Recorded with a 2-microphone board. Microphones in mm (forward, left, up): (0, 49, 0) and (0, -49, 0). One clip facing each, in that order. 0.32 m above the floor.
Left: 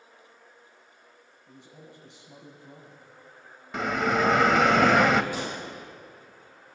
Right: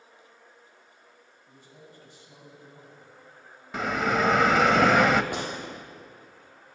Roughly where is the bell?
Centre.